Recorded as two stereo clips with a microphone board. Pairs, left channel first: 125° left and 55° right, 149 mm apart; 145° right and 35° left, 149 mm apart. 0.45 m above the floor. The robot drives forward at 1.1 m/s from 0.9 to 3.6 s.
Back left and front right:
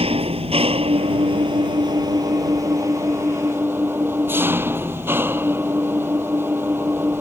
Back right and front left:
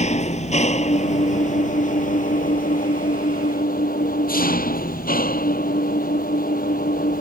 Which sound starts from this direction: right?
An engine running, at 0.0 s.